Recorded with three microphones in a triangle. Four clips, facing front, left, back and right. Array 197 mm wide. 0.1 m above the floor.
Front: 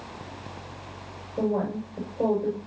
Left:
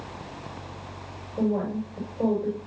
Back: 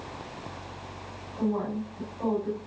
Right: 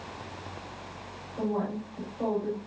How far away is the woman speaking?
About 9.5 m.